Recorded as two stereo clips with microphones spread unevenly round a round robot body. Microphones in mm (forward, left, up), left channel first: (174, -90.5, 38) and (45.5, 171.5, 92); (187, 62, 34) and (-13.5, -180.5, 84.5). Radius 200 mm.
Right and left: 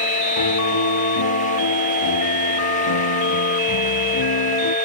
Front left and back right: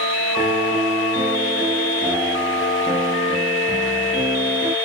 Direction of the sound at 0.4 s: 50° right.